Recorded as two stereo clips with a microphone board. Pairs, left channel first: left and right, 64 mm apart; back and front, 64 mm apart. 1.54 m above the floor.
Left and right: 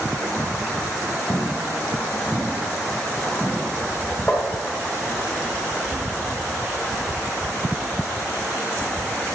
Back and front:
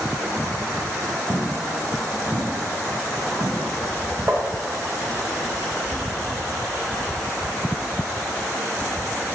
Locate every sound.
1.3 s footsteps: 45° left, 2 m; by 4.3 s 10° left, 3 m
4.3 s tapping: 30° left, 1.5 m